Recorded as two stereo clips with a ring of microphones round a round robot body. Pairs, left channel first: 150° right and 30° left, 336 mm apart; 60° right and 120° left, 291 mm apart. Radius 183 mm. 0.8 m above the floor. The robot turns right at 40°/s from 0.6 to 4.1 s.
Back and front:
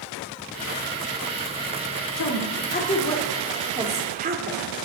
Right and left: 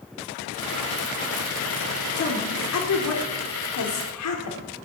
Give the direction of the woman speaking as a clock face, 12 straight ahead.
4 o'clock.